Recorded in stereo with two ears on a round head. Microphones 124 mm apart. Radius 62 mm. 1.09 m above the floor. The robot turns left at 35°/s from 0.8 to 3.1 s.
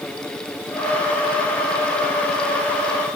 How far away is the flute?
No flute in this recording.